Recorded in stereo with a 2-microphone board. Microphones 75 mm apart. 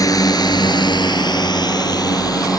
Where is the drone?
55° left (ahead or behind).